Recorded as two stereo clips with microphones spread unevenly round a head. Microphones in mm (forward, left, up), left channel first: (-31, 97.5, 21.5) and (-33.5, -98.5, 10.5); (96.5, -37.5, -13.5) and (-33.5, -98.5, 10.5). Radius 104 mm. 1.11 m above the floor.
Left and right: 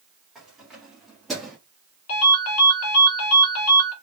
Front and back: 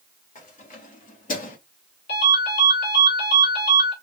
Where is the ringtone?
65° left, 1.5 m.